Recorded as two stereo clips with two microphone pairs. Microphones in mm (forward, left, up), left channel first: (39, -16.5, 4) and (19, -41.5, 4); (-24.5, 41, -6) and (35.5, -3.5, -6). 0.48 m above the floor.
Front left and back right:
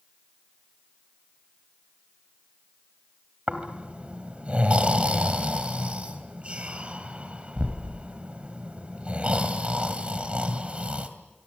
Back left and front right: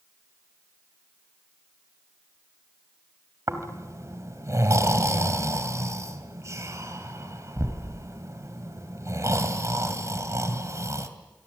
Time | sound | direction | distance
3.5 | snoring | 80° right | 2.5 m